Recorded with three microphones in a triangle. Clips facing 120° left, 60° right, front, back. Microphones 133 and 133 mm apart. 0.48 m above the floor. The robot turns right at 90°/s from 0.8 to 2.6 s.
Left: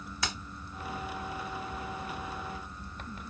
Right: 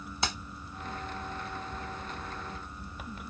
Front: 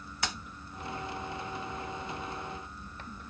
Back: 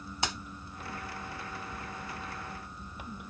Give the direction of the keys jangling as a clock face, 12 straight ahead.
4 o'clock.